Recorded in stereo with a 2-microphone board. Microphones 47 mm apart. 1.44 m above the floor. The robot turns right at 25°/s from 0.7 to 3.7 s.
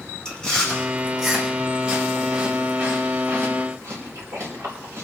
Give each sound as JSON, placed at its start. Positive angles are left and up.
{"t": 0.2, "sound": "chewing", "side_deg": 15, "distance_m": 5.0}